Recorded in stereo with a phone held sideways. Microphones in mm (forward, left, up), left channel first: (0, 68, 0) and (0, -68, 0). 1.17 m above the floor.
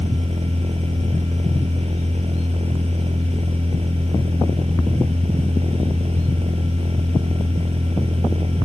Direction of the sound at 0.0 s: 50° right (ahead or behind).